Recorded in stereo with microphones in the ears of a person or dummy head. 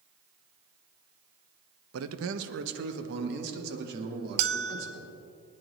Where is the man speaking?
80° right, 0.8 m; by 5.1 s 65° right (ahead or behind), 3.5 m.